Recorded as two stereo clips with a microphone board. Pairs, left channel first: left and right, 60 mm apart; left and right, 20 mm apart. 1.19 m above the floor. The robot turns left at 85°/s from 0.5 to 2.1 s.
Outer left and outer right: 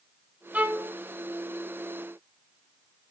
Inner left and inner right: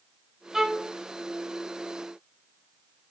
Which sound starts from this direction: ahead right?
A violin, at 0.5 s.